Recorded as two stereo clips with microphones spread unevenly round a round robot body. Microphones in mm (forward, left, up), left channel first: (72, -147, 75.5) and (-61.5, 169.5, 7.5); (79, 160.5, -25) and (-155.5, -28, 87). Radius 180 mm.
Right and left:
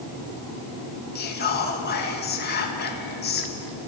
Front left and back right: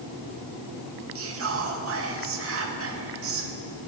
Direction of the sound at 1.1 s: 115° right.